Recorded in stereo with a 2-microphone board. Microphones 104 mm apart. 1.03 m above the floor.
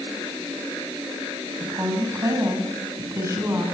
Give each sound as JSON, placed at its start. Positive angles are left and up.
{"t": 1.6, "sound": "a woman speaking", "side_deg": -30, "distance_m": 7.0}